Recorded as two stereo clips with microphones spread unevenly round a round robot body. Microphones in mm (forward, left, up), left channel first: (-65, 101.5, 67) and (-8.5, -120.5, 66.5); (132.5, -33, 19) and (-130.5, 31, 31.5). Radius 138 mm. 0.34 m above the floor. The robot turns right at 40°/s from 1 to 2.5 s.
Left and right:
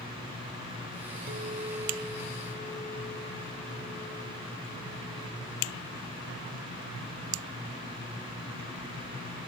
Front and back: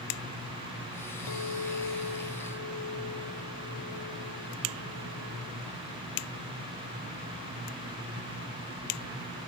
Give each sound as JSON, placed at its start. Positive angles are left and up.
{"t": 1.3, "sound": "a clink", "azimuth_deg": -20}